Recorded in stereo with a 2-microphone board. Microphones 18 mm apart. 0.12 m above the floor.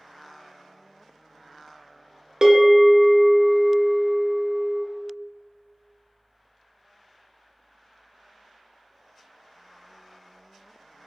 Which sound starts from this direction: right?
A bell, at 2.4 s.